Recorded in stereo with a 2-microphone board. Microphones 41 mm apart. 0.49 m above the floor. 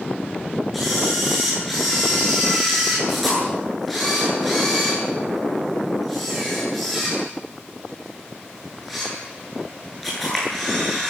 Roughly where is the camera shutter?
Centre.